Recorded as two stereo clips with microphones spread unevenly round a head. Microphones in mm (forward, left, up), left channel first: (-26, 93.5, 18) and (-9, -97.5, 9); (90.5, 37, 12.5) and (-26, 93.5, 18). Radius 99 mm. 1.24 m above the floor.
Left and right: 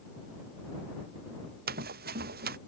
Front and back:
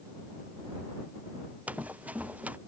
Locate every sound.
1.7 s running footsteps: 125° right